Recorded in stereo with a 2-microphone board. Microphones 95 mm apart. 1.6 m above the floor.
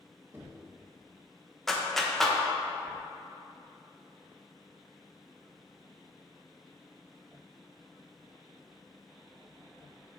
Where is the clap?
5° left (ahead or behind), 0.8 m.